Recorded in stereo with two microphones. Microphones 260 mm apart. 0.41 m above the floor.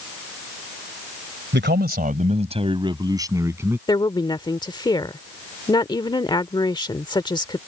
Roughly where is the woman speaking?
Centre.